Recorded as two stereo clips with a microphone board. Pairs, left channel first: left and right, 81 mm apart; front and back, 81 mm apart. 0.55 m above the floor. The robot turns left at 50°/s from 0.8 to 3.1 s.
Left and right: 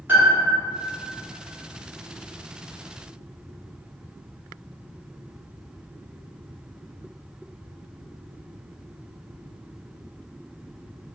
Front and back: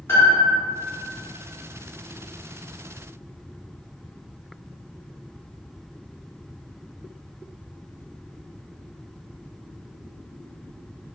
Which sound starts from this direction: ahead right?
A piano, at 0.1 s.